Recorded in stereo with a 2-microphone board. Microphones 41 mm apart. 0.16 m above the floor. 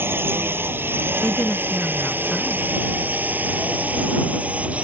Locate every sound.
0.0 s a drone: 70° right (ahead or behind); by 4.8 s 35° right (ahead or behind)
1.2 s a woman speaking: 45° left (ahead or behind)